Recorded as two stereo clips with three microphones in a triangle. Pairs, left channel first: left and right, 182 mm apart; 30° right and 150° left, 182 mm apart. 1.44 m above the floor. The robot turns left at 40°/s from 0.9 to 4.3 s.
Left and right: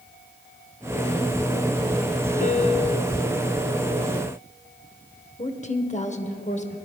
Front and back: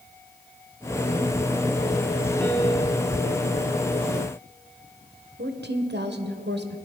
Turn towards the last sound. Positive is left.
turn(degrees=135)